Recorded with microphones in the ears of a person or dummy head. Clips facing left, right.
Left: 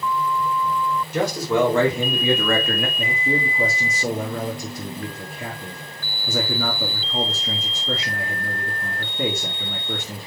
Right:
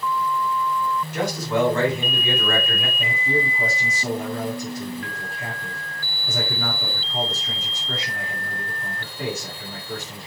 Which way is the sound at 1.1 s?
85° left.